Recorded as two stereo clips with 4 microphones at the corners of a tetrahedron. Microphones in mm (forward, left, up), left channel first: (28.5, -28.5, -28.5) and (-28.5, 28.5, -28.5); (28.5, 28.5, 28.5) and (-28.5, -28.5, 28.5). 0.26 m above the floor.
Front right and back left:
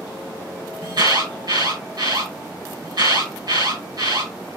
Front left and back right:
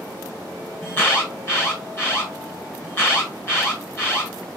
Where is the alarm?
105° left, 5.5 m.